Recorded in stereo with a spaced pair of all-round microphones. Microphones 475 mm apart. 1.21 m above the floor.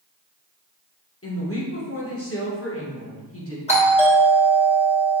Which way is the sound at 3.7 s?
15° left (ahead or behind).